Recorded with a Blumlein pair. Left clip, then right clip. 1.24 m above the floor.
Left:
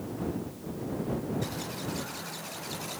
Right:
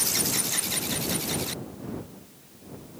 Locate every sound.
Only background noise.